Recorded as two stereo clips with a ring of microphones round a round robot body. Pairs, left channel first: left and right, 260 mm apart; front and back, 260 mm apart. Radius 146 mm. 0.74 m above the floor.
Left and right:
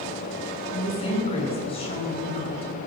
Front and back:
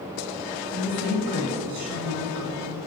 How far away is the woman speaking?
About 3.5 m.